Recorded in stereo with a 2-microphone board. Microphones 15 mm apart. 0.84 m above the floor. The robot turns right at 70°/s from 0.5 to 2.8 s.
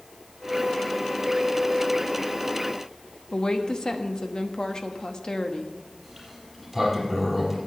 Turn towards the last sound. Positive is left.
turn(degrees=0)  # may be behind; listen again after turning